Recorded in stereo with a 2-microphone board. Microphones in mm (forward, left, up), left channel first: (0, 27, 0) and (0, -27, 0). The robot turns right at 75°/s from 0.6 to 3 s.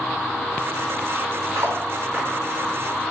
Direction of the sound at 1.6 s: 75° right (ahead or behind).